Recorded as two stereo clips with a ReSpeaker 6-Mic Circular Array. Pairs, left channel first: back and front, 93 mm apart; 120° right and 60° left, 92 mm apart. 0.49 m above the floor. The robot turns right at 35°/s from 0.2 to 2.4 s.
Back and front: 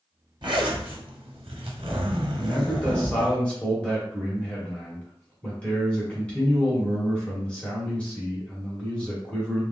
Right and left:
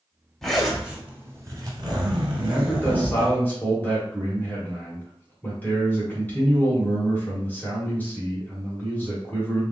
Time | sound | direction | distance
0.4 | a zipper | 35° right | 0.9 m
2.4 | a man speaking | 130° right | 1.3 m